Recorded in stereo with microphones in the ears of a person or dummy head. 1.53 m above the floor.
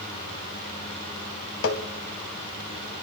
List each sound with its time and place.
1.6 s tapping: 80° left, 1.5 m